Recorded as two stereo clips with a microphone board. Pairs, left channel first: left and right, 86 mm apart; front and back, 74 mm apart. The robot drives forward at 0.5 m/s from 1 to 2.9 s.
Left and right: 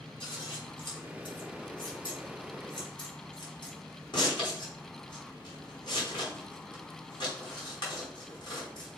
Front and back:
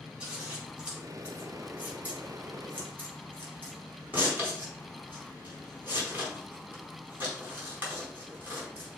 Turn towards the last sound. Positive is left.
turn(degrees=115)